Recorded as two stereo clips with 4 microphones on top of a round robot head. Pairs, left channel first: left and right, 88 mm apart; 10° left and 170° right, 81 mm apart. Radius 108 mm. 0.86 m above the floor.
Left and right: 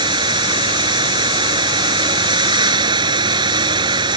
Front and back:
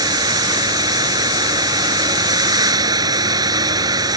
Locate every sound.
0.0 s running water: 125° right